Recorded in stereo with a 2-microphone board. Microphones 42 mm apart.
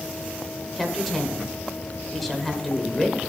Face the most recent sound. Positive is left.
turn(degrees=5)  # may be behind; listen again after turning